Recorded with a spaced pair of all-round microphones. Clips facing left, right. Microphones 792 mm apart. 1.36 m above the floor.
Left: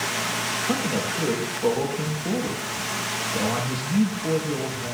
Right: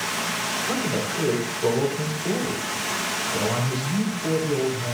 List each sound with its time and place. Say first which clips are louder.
0.7 s a man speaking: left 1 dB; 55° right (ahead or behind), 4 m